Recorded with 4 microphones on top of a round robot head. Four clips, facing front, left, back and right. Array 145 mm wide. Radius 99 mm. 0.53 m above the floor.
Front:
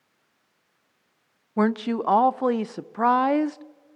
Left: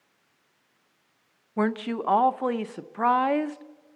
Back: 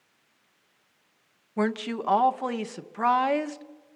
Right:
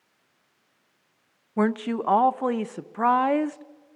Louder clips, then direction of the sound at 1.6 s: Right 2 dB, front 5 dB; 15° right.